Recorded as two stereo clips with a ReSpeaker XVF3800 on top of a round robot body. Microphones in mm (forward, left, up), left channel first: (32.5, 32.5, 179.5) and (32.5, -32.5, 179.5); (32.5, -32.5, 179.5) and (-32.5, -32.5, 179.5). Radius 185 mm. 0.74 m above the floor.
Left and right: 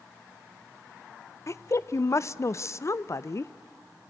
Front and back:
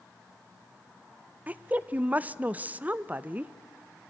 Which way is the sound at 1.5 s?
120° left.